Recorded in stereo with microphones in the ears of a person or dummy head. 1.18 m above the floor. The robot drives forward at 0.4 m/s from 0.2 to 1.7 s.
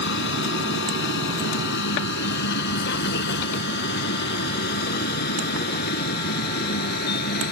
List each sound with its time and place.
0.0 s a vehicle: 65° left (ahead or behind); by 7.5 s 55° left (ahead or behind)